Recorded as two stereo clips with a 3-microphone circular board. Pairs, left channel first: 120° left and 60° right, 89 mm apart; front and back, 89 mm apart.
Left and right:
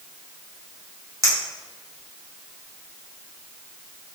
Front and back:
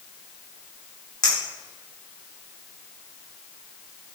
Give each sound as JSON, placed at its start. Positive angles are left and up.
{"t": 1.2, "sound": "a clink", "azimuth_deg": -25, "distance_m": 0.9}